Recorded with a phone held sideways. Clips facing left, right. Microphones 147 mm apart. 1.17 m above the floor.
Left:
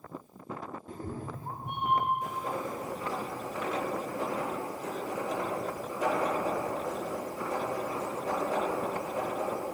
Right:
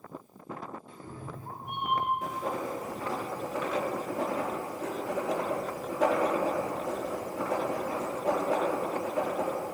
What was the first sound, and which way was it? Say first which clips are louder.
A cat meowing: left 4 dB; 40° left (ahead or behind).